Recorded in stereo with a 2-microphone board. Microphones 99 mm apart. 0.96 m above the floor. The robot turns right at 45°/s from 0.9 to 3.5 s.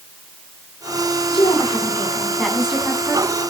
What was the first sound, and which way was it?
A woman speaking, 125° left.